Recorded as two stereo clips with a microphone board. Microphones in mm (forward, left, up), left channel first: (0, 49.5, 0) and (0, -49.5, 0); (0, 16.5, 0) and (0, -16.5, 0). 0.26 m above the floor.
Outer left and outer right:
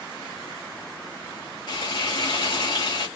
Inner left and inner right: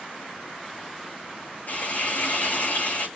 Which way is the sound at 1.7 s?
65° left (ahead or behind).